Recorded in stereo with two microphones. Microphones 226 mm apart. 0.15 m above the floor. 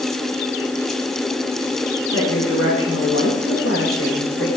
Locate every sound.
2.1 s a woman speaking: 70° left (ahead or behind), 10 m